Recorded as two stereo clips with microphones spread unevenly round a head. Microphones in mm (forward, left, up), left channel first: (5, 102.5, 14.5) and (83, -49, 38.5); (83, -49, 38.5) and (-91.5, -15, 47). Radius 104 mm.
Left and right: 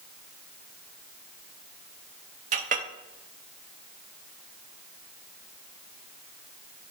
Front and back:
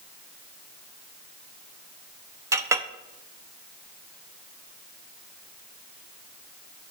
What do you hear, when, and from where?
2.5 s a clink: 115° right, 0.7 m